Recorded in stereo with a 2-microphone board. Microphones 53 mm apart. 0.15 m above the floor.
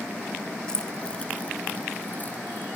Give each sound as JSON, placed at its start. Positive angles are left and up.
{"t": 0.7, "sound": "keys jangling", "side_deg": 15, "distance_m": 0.8}